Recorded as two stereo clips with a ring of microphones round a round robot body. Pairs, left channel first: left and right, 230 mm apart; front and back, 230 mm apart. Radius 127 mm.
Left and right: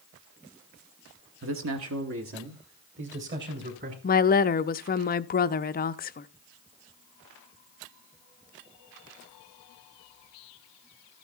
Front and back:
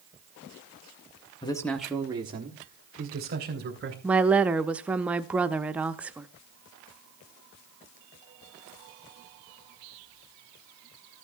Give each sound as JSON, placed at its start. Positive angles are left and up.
{"t": 1.4, "sound": "a man speaking", "azimuth_deg": -65, "distance_m": 1.2}
{"t": 4.0, "sound": "a woman speaking", "azimuth_deg": 100, "distance_m": 0.5}